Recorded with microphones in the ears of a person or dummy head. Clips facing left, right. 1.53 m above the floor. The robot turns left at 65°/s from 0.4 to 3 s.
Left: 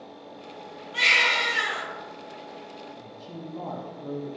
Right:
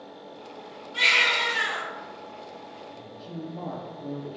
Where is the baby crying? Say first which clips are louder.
Left 1 dB; 100° left, 1.5 m; by 1.8 s 40° left, 1.5 m.